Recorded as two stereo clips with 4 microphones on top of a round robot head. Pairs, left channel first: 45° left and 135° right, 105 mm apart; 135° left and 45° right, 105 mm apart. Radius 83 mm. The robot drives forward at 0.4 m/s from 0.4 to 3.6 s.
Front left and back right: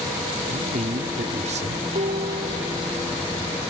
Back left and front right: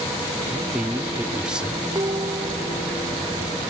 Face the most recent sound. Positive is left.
turn(degrees=-110)